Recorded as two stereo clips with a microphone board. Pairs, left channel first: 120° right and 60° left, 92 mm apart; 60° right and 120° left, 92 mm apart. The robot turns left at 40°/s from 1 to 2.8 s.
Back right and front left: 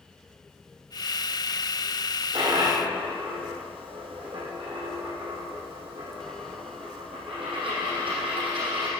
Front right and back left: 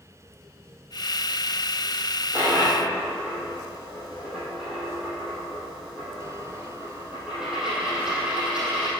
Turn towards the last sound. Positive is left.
turn(degrees=40)